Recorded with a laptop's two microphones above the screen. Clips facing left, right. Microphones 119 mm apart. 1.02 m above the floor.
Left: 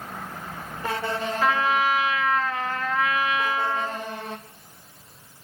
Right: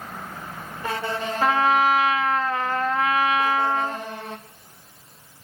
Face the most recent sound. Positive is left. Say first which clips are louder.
# right 4 dB
turn(degrees=-35)  # may be behind; listen again after turning